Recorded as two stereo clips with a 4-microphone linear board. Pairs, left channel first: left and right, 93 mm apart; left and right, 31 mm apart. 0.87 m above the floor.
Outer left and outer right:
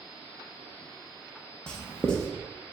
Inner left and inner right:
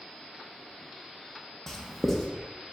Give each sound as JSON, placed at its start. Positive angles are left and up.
{"t": 1.7, "sound": "writing", "side_deg": 10, "distance_m": 0.6}